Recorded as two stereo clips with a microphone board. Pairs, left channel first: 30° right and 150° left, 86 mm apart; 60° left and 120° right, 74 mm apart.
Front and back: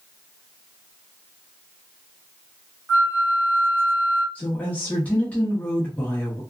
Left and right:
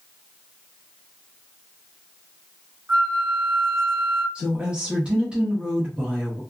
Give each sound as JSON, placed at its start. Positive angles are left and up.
{"t": 2.9, "sound": "a flute", "azimuth_deg": -160, "distance_m": 1.2}
{"t": 4.3, "sound": "a woman speaking", "azimuth_deg": -70, "distance_m": 1.0}